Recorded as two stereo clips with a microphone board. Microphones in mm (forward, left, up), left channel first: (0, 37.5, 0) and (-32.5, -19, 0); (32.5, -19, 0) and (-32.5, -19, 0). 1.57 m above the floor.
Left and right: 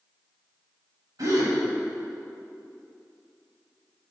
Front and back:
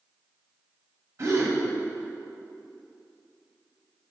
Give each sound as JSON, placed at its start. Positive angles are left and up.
{"t": 1.2, "sound": "a gasp", "azimuth_deg": -140, "distance_m": 2.5}